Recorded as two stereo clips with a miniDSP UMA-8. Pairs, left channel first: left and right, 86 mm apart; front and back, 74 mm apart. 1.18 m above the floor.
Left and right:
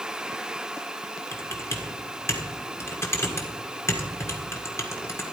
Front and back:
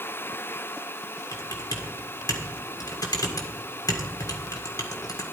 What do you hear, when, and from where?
1.3 s typing on a keyboard: 35° left, 1.6 m